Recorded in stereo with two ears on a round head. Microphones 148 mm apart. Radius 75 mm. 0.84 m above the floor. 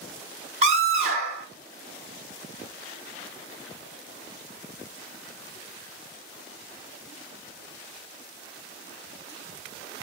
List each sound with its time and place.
0.6 s a scream: 40° right (ahead or behind), 1.8 m